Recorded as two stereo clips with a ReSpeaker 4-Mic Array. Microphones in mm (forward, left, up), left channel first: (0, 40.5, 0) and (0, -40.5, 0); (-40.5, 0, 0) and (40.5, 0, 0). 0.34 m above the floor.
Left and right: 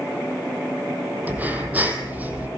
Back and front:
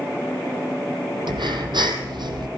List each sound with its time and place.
1.3 s breathing: 20° right, 2.5 m